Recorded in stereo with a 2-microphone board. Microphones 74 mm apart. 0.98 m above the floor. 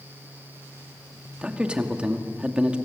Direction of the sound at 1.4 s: 15° right (ahead or behind).